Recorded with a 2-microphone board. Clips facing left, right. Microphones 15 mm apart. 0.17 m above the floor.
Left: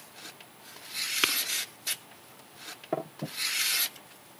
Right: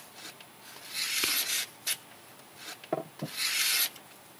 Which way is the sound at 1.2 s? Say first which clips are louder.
Left 5 dB; 40° left (ahead or behind).